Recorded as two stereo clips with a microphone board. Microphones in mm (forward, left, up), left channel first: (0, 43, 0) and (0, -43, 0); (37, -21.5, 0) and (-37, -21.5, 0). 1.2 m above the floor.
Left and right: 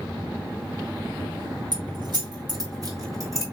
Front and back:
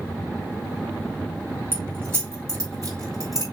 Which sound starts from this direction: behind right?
Keys jangling, at 1.7 s.